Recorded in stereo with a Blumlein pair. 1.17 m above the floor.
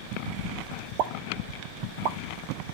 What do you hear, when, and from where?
1.0 s a pop: 45° right, 0.7 m